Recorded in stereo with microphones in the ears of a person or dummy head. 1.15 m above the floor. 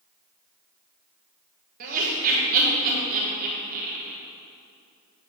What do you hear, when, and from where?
1.8 s laughter: 50° right (ahead or behind), 1.3 m